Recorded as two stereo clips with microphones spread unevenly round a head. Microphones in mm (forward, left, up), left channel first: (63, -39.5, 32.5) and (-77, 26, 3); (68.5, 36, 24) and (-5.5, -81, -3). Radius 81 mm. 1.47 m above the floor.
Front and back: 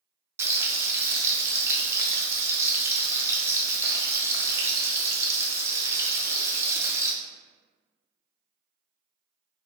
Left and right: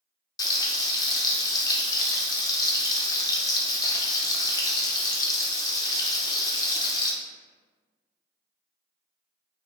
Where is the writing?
I don't hear writing.